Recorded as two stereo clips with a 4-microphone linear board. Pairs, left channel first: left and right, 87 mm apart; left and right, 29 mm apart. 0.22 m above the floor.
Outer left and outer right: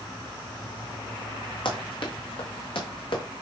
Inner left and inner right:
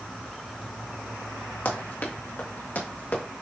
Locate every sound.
1.6 s running footsteps: 70° left (ahead or behind), 3 m; by 3.2 s 75° left (ahead or behind), 4 m